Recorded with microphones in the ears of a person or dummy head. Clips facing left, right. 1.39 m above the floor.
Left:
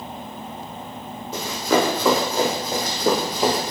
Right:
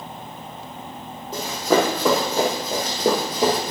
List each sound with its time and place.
1.3 s running footsteps: 30° right (ahead or behind), 3 m; by 3.7 s 45° right (ahead or behind), 2 m